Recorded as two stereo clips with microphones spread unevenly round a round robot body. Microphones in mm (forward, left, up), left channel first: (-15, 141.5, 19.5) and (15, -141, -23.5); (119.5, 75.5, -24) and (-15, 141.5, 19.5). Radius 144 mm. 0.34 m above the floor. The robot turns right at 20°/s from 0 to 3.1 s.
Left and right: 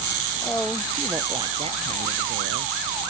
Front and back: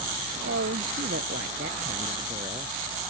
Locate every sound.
0.4 s a woman speaking: straight behind; by 2.7 s 135° right